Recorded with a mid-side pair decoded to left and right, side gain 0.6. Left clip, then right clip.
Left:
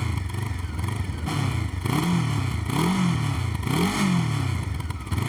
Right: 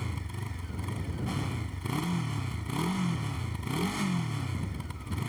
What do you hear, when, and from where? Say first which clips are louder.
0.0 s a motorcycle: left 7 dB; 40° left